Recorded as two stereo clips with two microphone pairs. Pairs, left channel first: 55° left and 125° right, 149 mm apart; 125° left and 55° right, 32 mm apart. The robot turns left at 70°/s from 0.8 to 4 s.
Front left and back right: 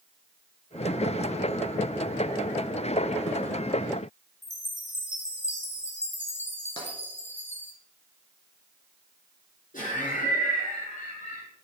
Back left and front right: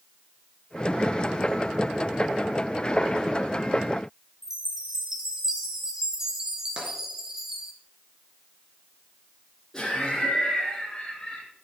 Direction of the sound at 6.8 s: Straight ahead.